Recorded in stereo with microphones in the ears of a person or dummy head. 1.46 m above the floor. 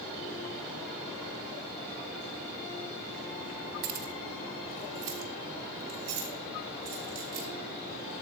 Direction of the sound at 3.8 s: 35° right (ahead or behind).